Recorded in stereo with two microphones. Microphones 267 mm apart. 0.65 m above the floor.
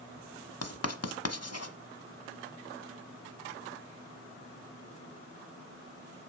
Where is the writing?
65° left (ahead or behind), 0.9 m.